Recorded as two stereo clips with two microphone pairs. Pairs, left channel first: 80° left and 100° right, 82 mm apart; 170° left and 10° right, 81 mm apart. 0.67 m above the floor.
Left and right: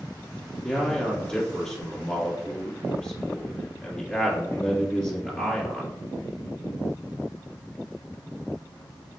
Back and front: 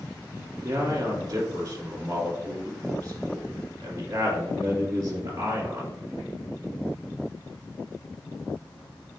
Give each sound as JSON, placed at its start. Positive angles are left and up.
{"t": 0.6, "sound": "a man speaking", "azimuth_deg": 5, "distance_m": 1.7}